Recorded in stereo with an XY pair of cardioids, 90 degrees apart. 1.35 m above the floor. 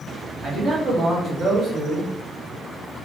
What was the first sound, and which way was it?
A man speaking, 60° right.